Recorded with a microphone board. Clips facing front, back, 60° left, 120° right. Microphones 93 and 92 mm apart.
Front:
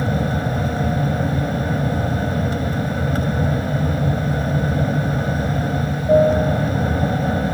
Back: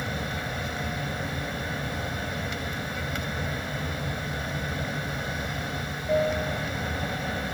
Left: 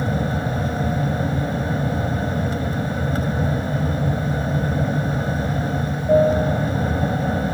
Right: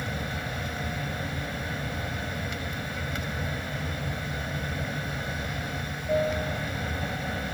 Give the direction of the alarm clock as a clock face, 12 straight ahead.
No alarm clock in this recording.